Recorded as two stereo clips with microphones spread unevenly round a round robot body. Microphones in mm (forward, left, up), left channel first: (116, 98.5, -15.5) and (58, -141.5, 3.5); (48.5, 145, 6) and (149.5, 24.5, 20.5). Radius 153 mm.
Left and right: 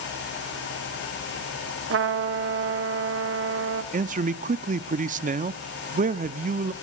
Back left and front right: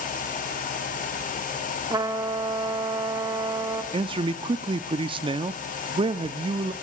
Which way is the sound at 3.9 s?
75° right.